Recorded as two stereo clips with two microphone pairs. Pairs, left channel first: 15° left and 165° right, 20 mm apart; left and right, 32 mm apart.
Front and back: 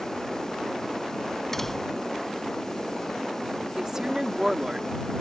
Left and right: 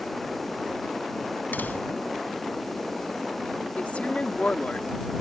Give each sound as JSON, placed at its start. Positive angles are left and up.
{"t": 1.5, "sound": "a door slam", "azimuth_deg": 90}
{"t": 3.8, "sound": "a woman speaking", "azimuth_deg": 130}